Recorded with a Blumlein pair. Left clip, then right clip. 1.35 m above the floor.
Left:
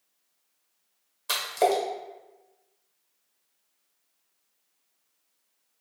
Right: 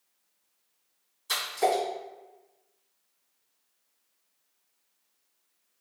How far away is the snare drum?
No snare drum in this recording.